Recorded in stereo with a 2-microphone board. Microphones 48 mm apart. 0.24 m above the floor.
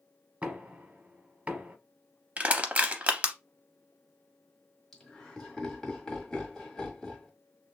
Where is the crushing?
30° right (ahead or behind), 0.6 m.